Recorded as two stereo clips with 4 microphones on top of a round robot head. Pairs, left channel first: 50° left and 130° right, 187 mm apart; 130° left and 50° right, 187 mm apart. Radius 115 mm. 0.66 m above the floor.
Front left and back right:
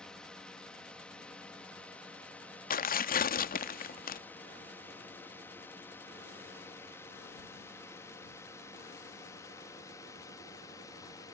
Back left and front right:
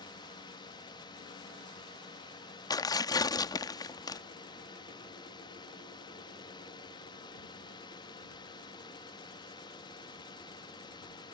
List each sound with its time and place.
0.0 s a drone: 130° left; by 11.3 s 100° left
2.7 s tearing paper: 65° left